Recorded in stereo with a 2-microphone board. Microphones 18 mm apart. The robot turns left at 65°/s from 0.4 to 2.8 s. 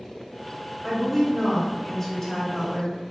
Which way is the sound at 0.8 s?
15° right (ahead or behind).